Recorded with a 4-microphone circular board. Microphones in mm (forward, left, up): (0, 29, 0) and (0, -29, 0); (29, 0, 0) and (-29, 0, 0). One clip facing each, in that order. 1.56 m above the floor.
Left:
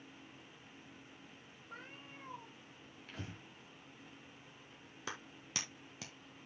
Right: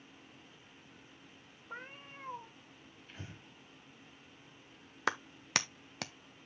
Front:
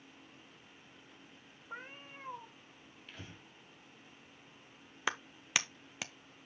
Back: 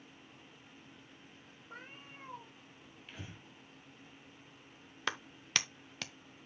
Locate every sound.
1.7 s a cat meowing: 60° right, 1.1 m
3.1 s breathing: 100° left, 2 m
5.1 s a clap: 80° right, 0.6 m